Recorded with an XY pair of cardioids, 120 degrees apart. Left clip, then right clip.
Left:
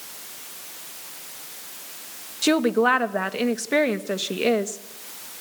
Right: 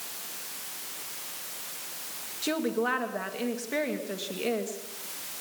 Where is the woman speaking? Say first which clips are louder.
Left 9 dB; 50° left, 2 m.